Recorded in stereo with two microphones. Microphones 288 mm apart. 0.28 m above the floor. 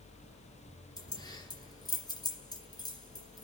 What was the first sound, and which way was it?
Keys jangling, 15° left (ahead or behind).